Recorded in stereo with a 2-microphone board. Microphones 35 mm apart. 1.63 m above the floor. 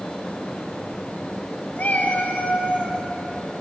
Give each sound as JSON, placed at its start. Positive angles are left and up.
{"t": 1.8, "sound": "a cat meowing", "side_deg": 55, "distance_m": 3.5}